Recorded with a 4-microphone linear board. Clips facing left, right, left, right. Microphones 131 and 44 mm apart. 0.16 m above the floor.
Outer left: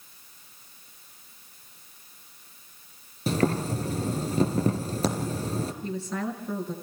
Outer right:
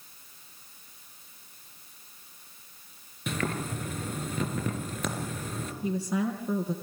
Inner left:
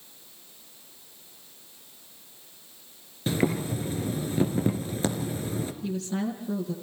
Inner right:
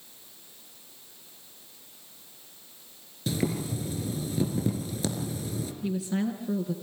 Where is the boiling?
35° left (ahead or behind), 2.5 m.